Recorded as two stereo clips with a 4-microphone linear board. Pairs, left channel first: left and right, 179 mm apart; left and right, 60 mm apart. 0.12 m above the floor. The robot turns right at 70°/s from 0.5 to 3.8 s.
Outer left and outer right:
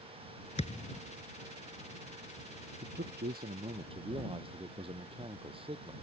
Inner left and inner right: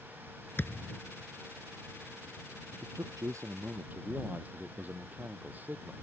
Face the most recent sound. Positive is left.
turn(degrees=-30)